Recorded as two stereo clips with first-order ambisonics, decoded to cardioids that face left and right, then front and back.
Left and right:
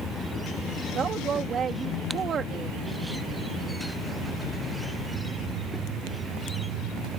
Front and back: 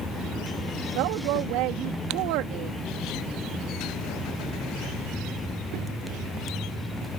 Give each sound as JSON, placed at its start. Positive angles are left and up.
{"t": 0.9, "sound": "a woman speaking", "azimuth_deg": -155}